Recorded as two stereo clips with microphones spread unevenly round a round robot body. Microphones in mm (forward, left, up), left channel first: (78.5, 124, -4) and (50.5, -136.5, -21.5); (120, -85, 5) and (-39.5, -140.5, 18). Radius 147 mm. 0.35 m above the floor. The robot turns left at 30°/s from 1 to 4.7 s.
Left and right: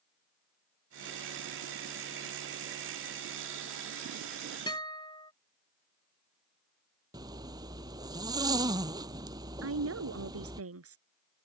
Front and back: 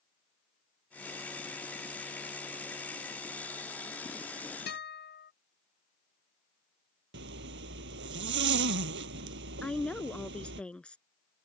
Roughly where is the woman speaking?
Ahead right.